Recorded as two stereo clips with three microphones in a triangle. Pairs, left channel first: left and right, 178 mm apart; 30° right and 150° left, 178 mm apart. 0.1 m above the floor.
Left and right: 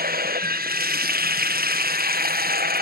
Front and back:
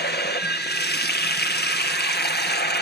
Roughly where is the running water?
Ahead right.